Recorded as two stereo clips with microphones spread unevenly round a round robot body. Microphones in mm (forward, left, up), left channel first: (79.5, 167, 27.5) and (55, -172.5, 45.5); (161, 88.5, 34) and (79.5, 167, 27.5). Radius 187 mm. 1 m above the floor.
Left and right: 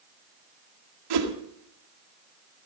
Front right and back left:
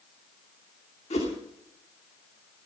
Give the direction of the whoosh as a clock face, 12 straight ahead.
3 o'clock.